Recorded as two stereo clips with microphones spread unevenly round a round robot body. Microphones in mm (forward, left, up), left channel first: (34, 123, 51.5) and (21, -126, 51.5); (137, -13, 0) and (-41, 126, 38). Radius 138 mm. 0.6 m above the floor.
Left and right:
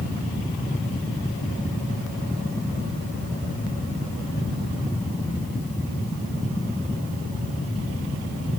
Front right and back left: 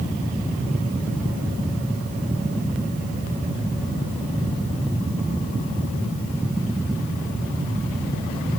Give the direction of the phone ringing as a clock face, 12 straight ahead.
No phone ringing in this recording.